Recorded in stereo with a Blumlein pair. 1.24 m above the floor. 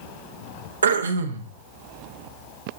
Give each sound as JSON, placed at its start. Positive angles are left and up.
{"t": 0.8, "sound": "throat clearing", "azimuth_deg": -70, "distance_m": 1.0}